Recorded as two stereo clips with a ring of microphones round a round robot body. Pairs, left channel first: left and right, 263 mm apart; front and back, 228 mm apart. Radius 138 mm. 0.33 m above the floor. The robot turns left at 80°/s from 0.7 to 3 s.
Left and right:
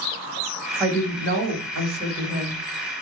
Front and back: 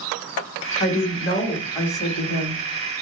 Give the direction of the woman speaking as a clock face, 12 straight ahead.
12 o'clock.